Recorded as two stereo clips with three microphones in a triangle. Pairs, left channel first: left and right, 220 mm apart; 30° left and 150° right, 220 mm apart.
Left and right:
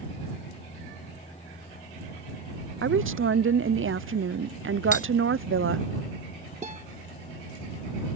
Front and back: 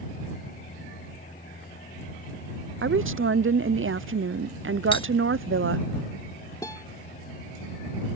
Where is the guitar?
40° right.